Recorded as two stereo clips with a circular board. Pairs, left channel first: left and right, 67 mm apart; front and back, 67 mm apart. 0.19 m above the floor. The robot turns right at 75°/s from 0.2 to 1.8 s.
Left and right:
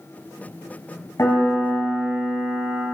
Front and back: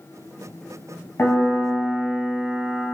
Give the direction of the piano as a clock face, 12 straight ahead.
10 o'clock.